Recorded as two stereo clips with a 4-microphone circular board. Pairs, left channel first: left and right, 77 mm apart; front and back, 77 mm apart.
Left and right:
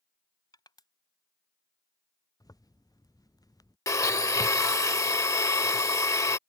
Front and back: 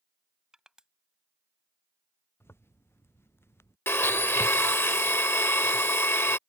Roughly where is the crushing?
Left.